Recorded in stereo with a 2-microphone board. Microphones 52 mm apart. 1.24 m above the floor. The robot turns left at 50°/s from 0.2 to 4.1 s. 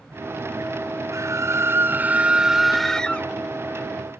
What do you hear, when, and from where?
1.1 s a scream: 100° right; by 3.3 s 150° left